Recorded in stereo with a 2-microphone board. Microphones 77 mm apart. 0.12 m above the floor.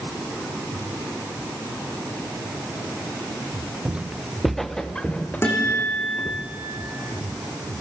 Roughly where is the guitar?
Left.